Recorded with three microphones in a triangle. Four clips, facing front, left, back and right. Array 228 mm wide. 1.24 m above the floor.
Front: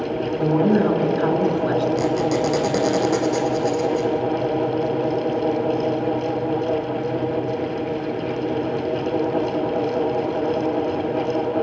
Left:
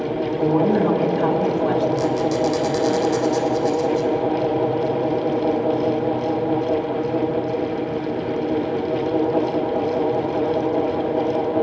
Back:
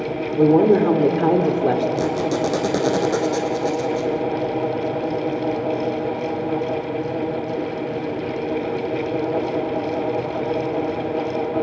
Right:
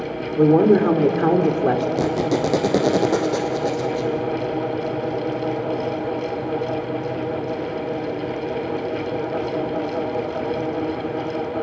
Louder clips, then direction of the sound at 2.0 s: Left 1 dB, front 1 dB; 95° right.